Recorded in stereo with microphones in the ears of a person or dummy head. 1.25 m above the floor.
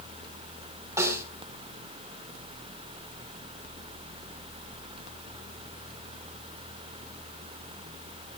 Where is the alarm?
No alarm in this recording.